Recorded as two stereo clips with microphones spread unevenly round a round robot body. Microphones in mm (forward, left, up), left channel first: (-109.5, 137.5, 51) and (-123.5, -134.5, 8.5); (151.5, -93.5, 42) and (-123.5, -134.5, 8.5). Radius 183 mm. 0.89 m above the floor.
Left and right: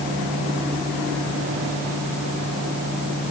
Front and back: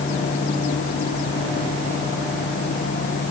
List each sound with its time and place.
Only background noise.